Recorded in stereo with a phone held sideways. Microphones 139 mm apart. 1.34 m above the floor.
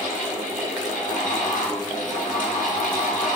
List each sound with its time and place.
0.0 s a fan: 75° left (ahead or behind), 5 m